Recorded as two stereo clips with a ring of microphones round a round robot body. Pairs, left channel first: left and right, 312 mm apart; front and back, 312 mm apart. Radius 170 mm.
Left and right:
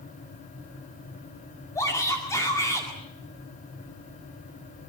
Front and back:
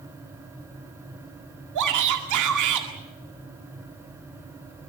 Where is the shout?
170° left, 2 m.